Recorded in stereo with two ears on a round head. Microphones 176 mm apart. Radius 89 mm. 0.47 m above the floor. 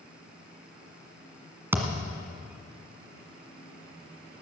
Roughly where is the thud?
Centre.